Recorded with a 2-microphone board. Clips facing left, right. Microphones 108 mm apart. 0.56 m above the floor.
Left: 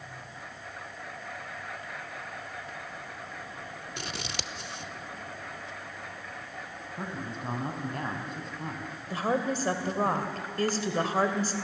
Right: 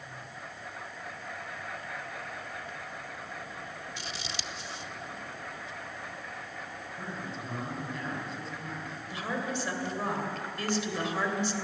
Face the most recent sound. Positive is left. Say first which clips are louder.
# left 6 dB
turn(degrees=40)  # may be behind; listen again after turning